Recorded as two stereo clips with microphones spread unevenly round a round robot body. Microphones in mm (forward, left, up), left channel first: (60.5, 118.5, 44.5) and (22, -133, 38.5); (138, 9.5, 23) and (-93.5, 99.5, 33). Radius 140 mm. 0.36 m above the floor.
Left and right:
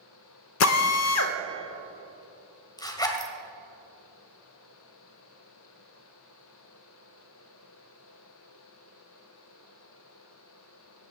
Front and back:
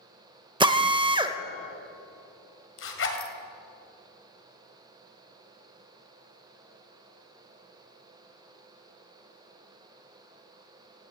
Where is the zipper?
5° left, 2 m.